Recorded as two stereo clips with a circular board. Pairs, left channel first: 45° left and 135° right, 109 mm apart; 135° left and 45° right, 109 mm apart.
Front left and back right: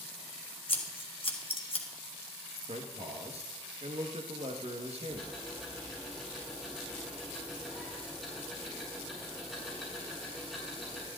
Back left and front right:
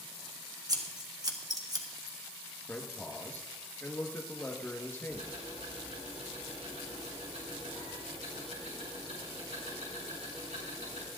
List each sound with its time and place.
0.7 s scissors: 10° left, 1.6 m
2.7 s a man speaking: 150° right, 2.0 m
5.1 s ticking: 45° right, 5 m